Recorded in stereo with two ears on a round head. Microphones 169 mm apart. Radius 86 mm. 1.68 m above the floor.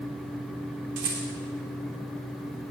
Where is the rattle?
65° right (ahead or behind), 3 m.